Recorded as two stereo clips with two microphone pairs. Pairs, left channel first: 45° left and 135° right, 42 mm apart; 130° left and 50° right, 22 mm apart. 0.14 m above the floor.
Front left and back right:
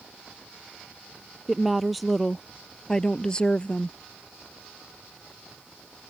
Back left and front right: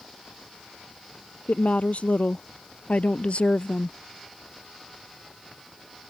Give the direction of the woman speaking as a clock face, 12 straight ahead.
7 o'clock.